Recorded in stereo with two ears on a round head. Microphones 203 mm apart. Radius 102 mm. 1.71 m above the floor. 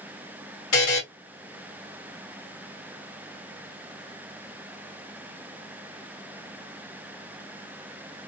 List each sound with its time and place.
0.7 s a buzzer: 70° left (ahead or behind), 2.5 m